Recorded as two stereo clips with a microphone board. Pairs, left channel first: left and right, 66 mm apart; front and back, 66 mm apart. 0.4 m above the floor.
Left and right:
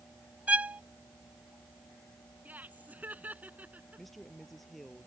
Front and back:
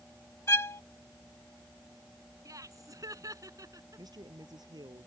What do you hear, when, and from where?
0.5 s a violin: 30° right
2.5 s laughter: 155° right
4.0 s a woman speaking: straight behind